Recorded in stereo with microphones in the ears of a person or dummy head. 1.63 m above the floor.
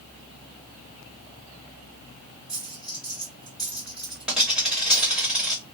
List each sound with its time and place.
2.5 s a dropped coin: 5° right (ahead or behind), 1.8 m